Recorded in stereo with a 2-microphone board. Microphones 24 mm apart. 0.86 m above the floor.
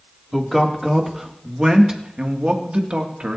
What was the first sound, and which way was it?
A man speaking, centre (ahead or behind).